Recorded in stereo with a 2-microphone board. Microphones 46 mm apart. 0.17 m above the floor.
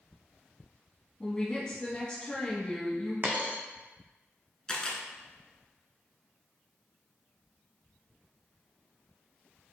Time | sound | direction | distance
1.2 | a woman speaking | 20° left (ahead or behind) | 1.3 m
3.2 | a dropped coin | 40° right (ahead or behind) | 0.8 m
4.7 | a camera shutter | 15° left (ahead or behind) | 0.7 m